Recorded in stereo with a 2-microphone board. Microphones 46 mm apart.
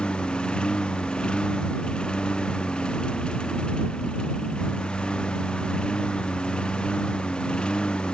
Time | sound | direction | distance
0.0 | a lawn mower | 20° left (ahead or behind) | ?